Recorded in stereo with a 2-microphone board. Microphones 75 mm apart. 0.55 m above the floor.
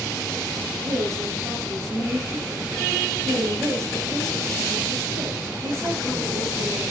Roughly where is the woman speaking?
Right.